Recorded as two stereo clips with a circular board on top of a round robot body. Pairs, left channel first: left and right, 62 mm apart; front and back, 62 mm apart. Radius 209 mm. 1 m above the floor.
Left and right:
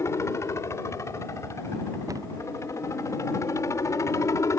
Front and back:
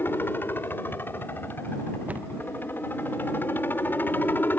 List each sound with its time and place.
0.0 s a helicopter: 55° left
2.1 s a cupboard door: 115° right